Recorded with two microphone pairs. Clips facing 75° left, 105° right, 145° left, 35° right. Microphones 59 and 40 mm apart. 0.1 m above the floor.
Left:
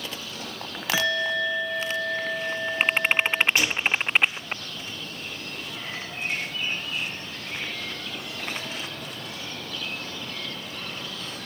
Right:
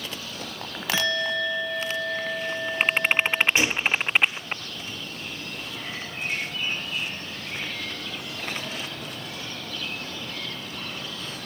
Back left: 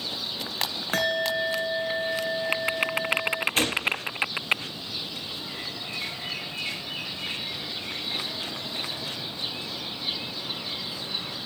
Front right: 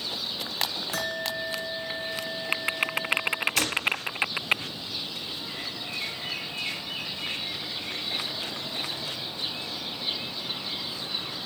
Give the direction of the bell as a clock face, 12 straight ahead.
7 o'clock.